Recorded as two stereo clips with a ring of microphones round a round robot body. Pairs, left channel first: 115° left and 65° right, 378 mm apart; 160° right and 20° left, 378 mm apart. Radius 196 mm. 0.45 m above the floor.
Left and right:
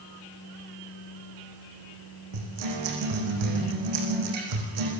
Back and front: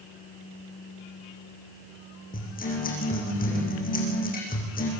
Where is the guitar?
90° right, 7.5 m.